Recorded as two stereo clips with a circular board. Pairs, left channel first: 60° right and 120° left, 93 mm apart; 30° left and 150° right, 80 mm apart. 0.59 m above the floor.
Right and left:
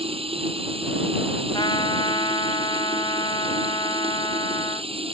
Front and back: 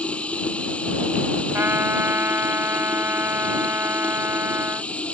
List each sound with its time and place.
0.0 s running water: 105° left
1.5 s a trumpet: 90° right